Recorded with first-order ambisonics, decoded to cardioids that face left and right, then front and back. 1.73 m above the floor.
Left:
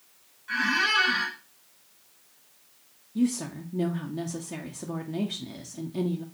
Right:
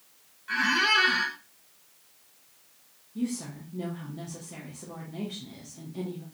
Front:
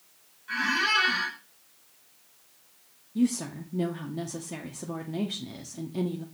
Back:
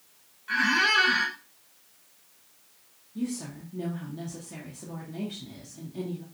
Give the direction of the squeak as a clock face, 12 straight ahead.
5 o'clock.